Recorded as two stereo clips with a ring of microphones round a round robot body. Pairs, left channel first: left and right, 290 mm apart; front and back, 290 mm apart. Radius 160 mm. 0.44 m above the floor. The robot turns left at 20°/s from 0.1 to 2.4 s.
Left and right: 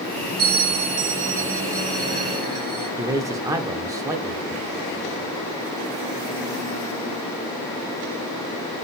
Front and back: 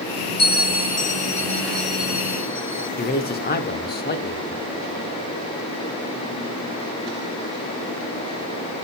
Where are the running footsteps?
No running footsteps in this recording.